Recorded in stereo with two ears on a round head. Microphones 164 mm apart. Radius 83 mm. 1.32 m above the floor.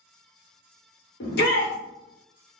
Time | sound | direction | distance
1.2 | a shout | 60° left (ahead or behind) | 1.0 m